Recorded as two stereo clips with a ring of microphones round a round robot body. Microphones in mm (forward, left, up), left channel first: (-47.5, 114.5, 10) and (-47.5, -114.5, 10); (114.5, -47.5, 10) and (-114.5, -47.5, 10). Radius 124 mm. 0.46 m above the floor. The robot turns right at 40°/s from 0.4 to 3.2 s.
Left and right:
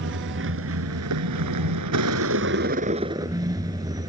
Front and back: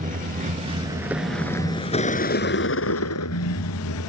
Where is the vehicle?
125° right; by 4.1 s 15° right.